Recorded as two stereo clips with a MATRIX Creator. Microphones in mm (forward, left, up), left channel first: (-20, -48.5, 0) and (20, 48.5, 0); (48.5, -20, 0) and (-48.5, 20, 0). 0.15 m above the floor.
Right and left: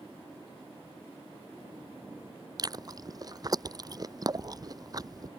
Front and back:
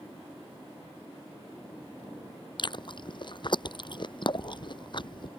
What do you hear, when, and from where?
2.6 s chewing: 15° left